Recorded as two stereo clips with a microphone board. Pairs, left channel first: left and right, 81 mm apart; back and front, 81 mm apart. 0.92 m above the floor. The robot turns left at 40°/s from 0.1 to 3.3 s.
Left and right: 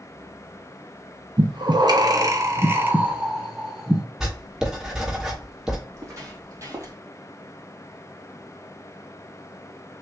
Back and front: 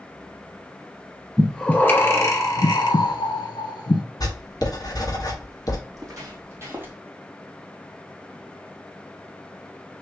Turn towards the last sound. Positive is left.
turn(degrees=-60)